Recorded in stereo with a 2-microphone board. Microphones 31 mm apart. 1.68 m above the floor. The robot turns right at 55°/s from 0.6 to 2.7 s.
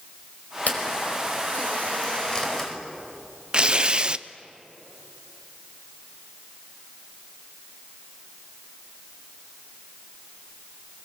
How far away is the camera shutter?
About 4.5 m.